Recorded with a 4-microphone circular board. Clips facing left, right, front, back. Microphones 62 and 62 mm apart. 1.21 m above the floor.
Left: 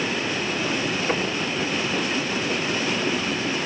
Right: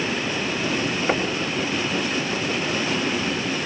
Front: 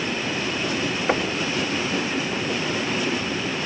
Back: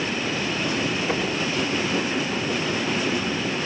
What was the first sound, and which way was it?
Knocking, 35° right.